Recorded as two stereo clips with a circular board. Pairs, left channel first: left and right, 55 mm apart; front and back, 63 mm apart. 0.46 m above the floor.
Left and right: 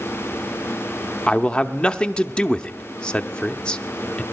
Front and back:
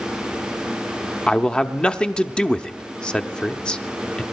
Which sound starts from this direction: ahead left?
A man speaking, at 1.3 s.